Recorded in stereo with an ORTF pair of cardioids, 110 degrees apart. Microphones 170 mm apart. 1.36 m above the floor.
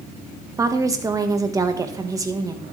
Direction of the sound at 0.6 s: 20° right.